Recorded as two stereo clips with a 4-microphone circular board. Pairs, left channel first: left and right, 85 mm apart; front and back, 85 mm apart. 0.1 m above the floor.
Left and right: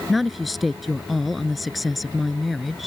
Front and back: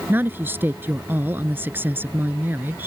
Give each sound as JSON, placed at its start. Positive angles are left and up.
{"t": 0.1, "sound": "a woman speaking", "azimuth_deg": 180}